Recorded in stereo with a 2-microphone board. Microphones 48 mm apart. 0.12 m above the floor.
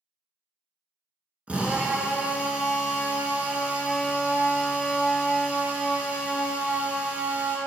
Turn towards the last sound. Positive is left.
turn(degrees=-25)  # may be behind; listen again after turning